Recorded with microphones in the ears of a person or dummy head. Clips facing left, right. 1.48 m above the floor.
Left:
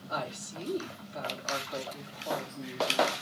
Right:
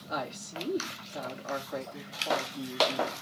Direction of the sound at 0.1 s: 25° right (ahead or behind).